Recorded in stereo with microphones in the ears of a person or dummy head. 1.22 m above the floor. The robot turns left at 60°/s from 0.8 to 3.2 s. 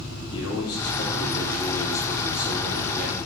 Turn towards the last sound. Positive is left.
turn(degrees=-55)